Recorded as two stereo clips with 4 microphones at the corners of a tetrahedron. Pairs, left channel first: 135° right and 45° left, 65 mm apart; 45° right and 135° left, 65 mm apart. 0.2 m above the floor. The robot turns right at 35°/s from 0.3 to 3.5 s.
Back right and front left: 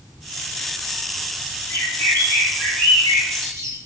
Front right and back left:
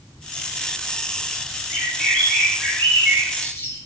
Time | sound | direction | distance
1.7 | a bird | 125° right | 1.5 m